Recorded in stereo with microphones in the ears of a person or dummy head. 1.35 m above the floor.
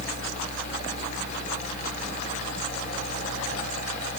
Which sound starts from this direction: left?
A fan, at 0.0 s.